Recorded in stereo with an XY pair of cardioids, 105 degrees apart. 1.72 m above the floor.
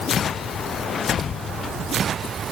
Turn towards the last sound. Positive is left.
No sound to turn to.